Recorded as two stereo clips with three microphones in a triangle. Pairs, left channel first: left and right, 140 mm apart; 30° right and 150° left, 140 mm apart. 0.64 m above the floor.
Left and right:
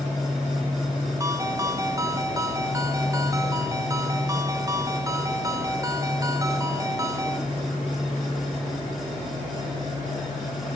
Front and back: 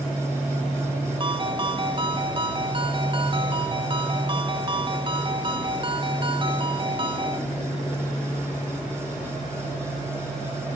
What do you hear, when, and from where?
1.2 s a ringtone: 155° right, 1.0 m